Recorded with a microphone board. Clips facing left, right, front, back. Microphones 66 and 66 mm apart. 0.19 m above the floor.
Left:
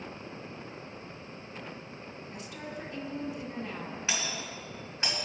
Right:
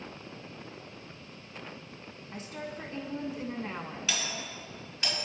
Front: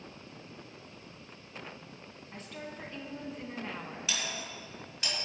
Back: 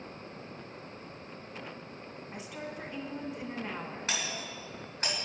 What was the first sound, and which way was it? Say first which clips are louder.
A woman speaking: right 3 dB, back 2 dB; 110° right.